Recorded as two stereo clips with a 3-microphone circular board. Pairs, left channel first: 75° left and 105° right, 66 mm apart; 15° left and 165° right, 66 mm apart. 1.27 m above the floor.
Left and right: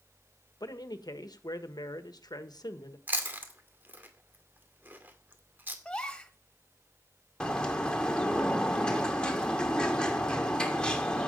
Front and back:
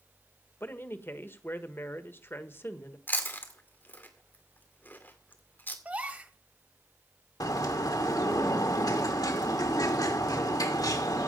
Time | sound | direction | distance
0.6 | a man speaking | 70° left | 1.3 m
3.1 | chewing | 45° right | 2 m
5.8 | a gasp | 145° left | 1.3 m
7.4 | a bird | straight ahead | 2 m